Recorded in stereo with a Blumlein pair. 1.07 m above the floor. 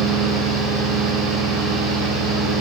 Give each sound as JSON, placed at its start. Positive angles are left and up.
{"t": 0.0, "sound": "a fan", "azimuth_deg": -45, "distance_m": 9.5}